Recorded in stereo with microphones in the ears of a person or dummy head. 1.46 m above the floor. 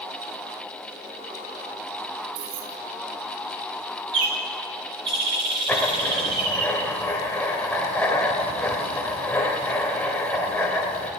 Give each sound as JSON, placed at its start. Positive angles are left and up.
{"t": 2.4, "sound": "keys jangling", "side_deg": -75, "distance_m": 1.4}
{"t": 4.1, "sound": "a bird", "side_deg": -30, "distance_m": 3.5}
{"t": 5.7, "sound": "writing", "side_deg": 10, "distance_m": 1.6}